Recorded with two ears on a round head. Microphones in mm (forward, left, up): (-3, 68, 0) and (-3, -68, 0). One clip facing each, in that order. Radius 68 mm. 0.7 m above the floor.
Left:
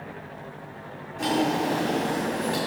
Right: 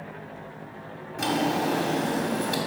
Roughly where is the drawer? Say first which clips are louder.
Left 1 dB; right.